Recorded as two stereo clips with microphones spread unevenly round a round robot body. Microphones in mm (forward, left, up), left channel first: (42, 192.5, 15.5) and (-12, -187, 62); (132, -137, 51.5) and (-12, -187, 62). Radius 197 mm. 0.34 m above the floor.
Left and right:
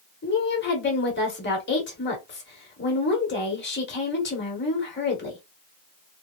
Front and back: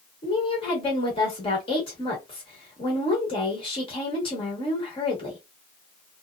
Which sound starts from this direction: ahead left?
A woman speaking, at 0.2 s.